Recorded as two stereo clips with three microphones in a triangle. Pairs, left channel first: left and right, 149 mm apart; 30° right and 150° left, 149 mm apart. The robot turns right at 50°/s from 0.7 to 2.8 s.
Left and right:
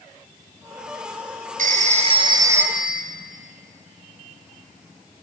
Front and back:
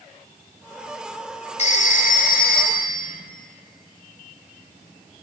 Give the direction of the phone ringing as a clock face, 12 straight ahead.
2 o'clock.